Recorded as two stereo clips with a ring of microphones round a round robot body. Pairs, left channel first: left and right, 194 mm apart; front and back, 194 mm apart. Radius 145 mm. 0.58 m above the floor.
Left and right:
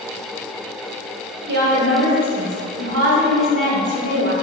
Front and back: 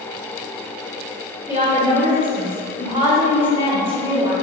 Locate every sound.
1.5 s a woman speaking: 105° right, 2 m